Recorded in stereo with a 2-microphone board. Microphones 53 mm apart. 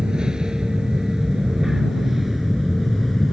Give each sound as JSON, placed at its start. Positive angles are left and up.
{"t": 0.0, "sound": "an aircraft", "side_deg": -15}